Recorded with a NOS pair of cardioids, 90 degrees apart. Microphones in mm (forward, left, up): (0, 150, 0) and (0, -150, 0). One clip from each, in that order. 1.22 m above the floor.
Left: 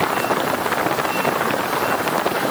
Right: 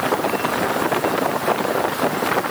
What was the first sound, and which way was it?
Only background noise.